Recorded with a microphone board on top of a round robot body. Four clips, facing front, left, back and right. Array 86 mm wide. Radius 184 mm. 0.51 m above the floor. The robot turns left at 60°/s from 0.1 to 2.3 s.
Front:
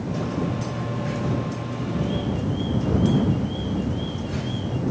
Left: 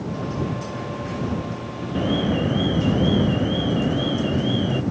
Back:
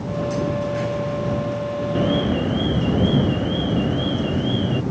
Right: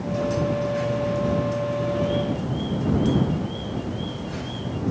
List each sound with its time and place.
1.9 s an alarm: 150° left; by 4.8 s 130° left